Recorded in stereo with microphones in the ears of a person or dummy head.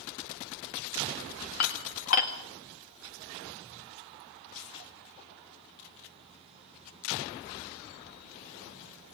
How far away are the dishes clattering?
About 1.6 m.